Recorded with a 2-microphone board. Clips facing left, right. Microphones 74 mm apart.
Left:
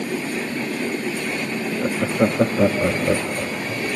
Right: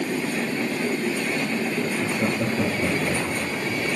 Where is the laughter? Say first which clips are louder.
Left 4 dB; 60° left (ahead or behind), 1.7 m.